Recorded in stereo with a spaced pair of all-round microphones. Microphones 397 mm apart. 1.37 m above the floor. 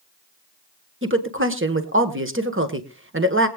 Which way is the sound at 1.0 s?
30° right (ahead or behind).